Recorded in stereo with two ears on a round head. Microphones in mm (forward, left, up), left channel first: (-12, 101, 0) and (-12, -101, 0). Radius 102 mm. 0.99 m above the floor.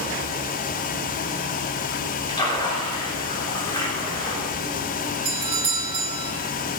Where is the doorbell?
25° right (ahead or behind), 1.6 m.